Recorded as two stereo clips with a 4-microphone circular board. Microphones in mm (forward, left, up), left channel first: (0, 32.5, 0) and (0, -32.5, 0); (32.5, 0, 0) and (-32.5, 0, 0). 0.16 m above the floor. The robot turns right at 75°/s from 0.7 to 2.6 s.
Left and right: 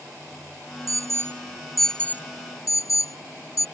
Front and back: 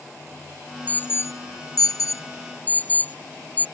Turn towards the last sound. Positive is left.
turn(degrees=60)